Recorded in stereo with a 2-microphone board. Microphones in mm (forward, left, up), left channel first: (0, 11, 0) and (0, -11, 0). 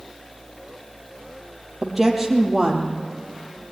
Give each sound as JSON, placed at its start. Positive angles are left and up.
{"t": 1.8, "sound": "a woman speaking", "side_deg": -10, "distance_m": 4.0}